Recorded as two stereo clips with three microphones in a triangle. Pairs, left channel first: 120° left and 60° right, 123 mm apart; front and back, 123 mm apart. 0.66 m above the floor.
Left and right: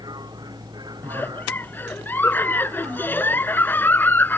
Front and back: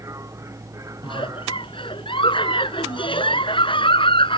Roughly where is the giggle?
Ahead left.